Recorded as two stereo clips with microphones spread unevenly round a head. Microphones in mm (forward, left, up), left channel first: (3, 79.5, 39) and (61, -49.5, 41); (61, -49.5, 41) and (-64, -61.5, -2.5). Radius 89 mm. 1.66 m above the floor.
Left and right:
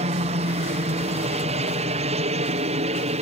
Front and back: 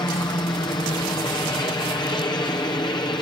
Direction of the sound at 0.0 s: 55° right.